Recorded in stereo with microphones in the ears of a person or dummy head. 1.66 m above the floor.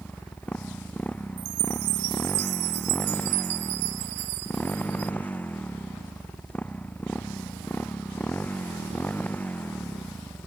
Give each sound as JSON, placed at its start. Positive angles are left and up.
{"t": 0.0, "sound": "a motorcycle", "side_deg": 10}
{"t": 1.4, "sound": "a chime", "side_deg": -55}